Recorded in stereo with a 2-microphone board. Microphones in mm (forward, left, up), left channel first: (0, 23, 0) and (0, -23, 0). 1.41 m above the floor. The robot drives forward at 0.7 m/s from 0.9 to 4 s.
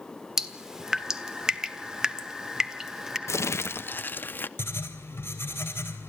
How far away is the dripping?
About 1.2 m.